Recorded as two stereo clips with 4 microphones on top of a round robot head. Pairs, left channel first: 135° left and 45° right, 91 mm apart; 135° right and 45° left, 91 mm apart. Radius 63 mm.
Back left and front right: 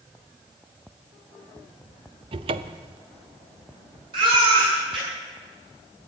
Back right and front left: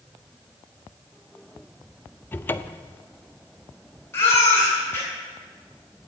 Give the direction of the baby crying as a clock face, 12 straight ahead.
2 o'clock.